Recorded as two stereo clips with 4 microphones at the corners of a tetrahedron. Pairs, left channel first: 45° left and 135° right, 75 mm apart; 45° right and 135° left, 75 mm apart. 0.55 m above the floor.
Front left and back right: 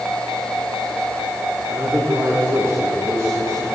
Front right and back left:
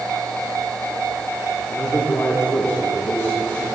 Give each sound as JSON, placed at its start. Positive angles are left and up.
{"t": 1.7, "sound": "a man speaking", "azimuth_deg": -95, "distance_m": 5.0}